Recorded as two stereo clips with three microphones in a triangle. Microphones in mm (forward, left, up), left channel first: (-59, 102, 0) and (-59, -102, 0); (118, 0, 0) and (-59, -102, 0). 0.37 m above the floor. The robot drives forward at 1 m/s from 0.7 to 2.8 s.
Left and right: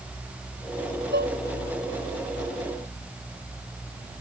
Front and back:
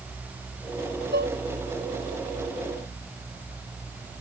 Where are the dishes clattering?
120° right; by 1.4 s 125° right.